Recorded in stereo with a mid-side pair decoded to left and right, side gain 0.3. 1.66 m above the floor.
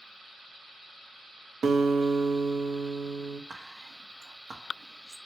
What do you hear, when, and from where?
1.6 s a guitar: 70° right, 0.5 m
3.5 s whispering: 65° right, 0.6 m